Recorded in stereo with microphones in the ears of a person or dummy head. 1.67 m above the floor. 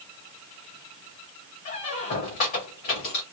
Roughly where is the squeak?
Left.